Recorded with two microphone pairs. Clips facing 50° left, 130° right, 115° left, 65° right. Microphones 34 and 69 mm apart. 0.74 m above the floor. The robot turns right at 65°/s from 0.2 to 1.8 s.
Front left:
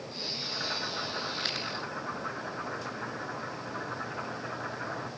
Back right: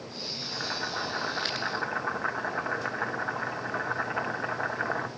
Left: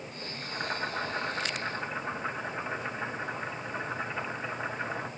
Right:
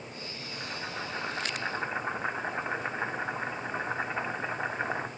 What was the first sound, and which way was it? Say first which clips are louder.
Boiling: back right 2 dB, left 6 dB; 145° left.